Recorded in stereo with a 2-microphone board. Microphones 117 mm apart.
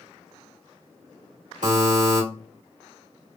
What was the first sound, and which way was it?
A buzzer, 75° right (ahead or behind).